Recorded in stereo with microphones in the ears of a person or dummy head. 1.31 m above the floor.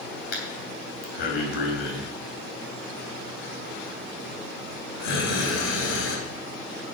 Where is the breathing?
55° left (ahead or behind), 3 m.